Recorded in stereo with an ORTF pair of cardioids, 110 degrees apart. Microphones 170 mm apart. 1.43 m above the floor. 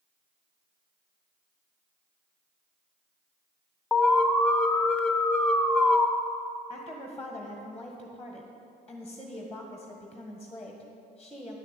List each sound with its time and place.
3.9 s an alarm: 5° left, 0.8 m
6.7 s a woman speaking: 5° left, 1.5 m